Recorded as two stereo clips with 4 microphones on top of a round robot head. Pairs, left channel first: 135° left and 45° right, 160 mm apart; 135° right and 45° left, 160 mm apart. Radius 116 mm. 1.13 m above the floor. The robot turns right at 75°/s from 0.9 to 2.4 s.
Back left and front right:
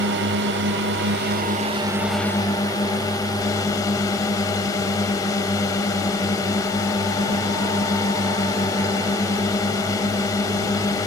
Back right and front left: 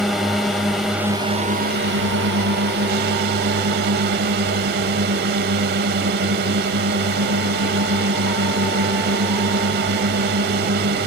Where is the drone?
45° right; by 11.1 s 65° left.